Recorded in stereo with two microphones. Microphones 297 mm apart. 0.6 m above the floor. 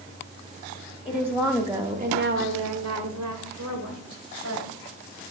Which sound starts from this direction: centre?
A woman speaking, at 1.1 s.